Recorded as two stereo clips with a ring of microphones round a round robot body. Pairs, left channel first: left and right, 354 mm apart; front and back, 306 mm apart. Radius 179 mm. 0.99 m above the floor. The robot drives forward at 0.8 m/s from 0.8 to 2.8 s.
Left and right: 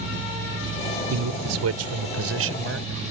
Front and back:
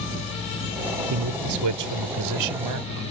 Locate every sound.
1.1 s a man speaking: 135° right; by 3.0 s 145° right